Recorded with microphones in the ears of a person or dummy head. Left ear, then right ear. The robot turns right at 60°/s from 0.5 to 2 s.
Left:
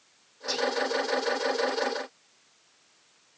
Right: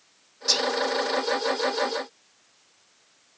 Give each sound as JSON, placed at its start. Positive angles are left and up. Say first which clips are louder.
{"t": 0.5, "sound": "whispering", "louder": "right 5 dB", "side_deg": -20, "distance_m": 0.7}